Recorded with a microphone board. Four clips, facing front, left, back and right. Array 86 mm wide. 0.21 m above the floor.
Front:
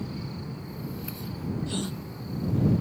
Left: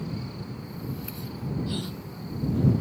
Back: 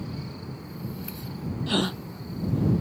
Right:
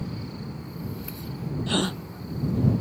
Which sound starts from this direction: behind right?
A gasp, at 1.7 s.